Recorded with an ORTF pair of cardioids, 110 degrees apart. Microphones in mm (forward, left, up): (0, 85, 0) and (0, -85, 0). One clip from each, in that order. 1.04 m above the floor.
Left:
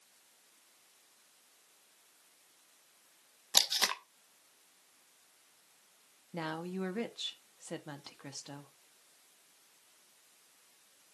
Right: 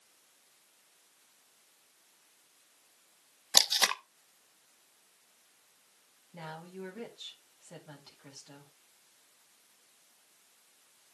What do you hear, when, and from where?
3.5 s tape being pulled: 20° right, 0.7 m
6.3 s a woman speaking: 55° left, 1.7 m